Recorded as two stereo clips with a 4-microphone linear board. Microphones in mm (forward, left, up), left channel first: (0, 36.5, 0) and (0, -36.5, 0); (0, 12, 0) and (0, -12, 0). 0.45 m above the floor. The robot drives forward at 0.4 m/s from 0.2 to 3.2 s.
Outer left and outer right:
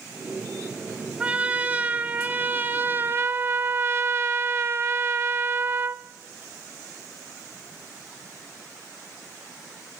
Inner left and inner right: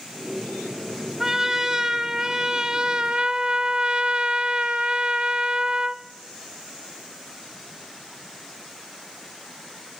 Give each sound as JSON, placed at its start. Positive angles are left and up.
{"t": 1.2, "sound": "a trumpet", "side_deg": -20, "distance_m": 1.5}